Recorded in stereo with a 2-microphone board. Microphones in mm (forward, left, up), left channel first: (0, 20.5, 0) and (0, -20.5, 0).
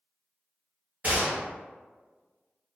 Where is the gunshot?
35° right (ahead or behind), 1.1 m.